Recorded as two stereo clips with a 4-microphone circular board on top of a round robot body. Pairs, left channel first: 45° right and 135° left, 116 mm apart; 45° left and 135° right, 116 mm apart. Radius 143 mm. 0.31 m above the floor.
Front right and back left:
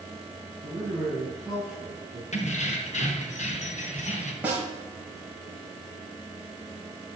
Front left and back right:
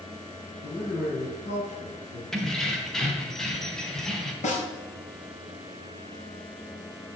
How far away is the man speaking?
About 7 m.